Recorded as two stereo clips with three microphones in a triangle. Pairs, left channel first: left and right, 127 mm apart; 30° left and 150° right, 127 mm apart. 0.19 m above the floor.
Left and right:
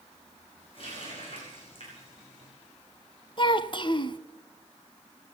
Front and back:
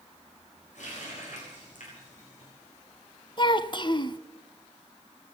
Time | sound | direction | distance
0.8 | a running tap | 45° left | 9 m
3.4 | a child speaking | 60° left | 0.8 m